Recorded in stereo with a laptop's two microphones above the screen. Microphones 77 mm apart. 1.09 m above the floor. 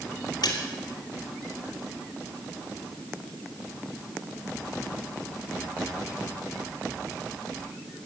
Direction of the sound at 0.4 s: 80° left.